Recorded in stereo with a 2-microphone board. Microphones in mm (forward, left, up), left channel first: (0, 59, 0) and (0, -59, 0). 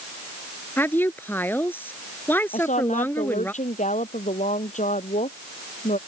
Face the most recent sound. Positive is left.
turn(degrees=80)